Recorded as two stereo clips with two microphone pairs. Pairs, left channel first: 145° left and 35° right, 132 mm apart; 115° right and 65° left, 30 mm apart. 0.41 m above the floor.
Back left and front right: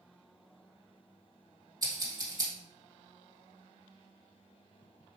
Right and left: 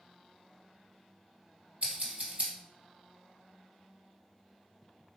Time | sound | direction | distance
1.8 | scissors | 25° left | 2 m